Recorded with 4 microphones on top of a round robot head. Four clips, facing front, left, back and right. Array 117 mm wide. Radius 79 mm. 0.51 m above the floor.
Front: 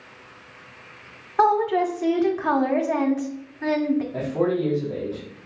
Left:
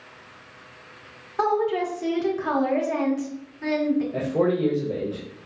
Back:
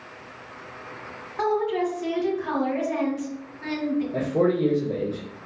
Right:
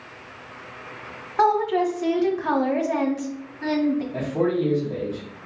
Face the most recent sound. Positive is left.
turn(degrees=150)